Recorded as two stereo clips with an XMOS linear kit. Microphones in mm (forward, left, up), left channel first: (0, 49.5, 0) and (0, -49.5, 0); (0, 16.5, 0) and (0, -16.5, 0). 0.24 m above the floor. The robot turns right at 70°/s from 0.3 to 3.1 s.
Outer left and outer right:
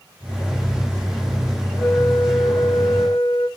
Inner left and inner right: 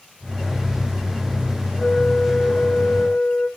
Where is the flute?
10° left, 1.2 m; by 3.5 s 105° left, 1.2 m.